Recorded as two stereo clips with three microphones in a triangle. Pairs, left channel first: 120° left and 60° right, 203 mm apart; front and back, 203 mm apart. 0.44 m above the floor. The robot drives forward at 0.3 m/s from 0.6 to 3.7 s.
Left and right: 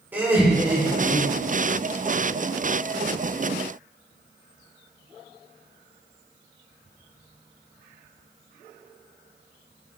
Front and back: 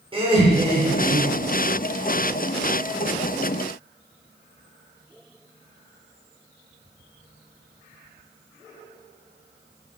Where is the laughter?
135° right, 1.0 m; by 1.5 s 150° right, 1.1 m.